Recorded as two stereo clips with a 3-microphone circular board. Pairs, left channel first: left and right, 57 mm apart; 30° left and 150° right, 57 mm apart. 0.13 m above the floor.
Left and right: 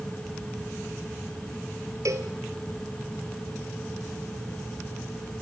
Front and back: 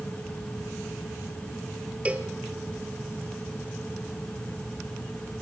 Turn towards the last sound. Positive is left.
turn(degrees=-85)